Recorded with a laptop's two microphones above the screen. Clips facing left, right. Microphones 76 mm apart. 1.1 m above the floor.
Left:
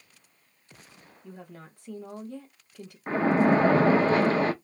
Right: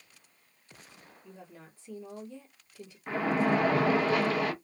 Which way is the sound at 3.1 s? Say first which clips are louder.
Left 5 dB; 35° left (ahead or behind).